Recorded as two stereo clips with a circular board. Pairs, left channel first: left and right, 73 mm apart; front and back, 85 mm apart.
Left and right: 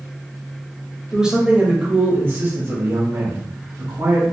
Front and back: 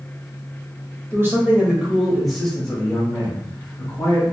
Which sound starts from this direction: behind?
A man speaking, at 1.1 s.